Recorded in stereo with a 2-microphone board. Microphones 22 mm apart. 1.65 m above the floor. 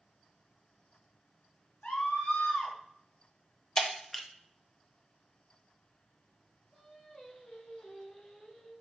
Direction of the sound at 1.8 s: 85° left.